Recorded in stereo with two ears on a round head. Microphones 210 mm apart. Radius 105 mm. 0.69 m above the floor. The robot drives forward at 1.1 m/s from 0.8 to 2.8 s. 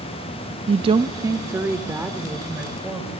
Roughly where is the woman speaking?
Right.